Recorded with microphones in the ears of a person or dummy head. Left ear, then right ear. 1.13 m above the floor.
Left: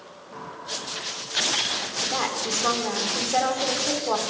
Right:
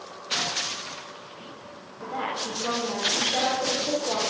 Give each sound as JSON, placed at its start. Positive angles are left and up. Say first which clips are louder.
{"t": 2.0, "sound": "a woman speaking", "louder": "left 1 dB", "side_deg": 55, "distance_m": 4.0}